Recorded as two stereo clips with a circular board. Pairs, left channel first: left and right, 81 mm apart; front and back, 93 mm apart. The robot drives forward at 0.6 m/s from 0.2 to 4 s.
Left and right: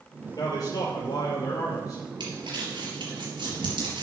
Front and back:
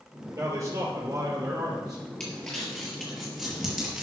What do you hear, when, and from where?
0.3 s a man speaking: 120° left, 5 m; by 2.0 s 130° left, 5.5 m
2.2 s crumpling: 80° right, 4.5 m; by 4.0 s 90° right, 4.5 m